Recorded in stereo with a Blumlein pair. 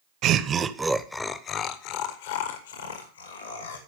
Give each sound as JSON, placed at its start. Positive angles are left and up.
{"t": 0.2, "sound": "laughter", "azimuth_deg": -35, "distance_m": 0.9}